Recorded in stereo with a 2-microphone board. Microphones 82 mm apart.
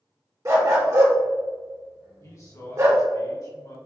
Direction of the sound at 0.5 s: 40° right (ahead or behind).